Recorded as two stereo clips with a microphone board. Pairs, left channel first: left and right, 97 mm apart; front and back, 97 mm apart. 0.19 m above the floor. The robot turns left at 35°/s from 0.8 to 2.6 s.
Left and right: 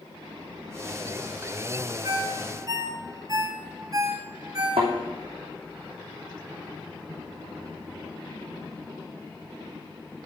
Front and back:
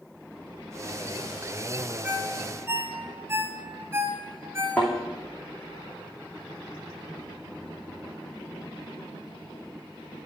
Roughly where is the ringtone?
Right.